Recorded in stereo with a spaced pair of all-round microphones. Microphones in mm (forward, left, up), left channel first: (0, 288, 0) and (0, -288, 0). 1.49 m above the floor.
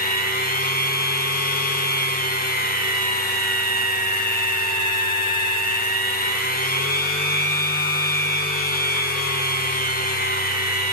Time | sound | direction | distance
0.0 | a machine running | 15° left (ahead or behind) | 0.8 m